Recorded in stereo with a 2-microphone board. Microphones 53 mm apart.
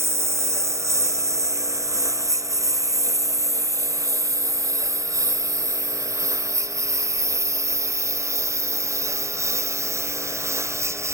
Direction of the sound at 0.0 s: 55° right (ahead or behind).